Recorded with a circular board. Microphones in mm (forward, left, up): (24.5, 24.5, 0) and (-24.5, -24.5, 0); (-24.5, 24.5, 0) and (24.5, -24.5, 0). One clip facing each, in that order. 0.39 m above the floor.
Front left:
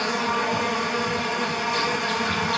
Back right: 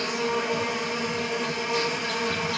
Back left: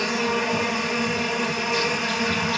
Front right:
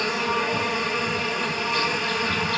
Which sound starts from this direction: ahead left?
An insect, at 0.0 s.